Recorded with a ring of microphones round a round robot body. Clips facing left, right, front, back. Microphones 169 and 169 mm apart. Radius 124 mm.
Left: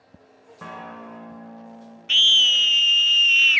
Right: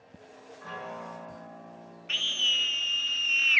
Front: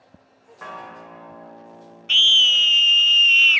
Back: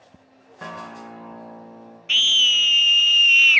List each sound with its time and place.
0.6 s a guitar: 125° left, 7 m
2.1 s a scream: 100° left, 0.6 m